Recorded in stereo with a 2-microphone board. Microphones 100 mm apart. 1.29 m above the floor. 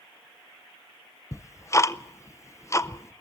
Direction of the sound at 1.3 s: 30° left (ahead or behind).